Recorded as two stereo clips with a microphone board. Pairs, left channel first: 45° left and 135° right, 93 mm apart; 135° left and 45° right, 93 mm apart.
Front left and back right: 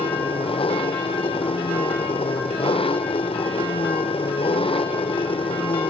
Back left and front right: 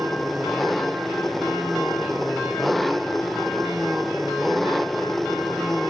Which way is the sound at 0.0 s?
45° left.